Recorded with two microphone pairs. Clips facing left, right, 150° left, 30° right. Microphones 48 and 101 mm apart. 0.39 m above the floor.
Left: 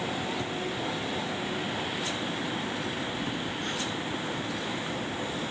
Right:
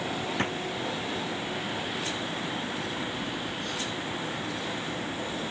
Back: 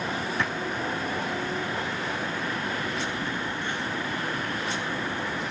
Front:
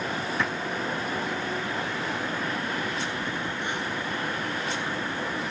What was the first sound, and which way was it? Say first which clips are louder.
A drawer: right 3 dB, front 1 dB; 115° right.